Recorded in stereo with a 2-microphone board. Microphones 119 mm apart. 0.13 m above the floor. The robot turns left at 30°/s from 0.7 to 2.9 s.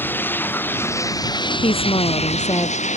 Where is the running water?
165° left; by 3.0 s 100° left.